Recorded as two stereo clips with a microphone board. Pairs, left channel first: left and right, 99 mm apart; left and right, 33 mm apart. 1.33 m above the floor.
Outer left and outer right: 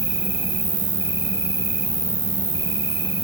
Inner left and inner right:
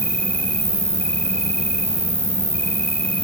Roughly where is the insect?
Left.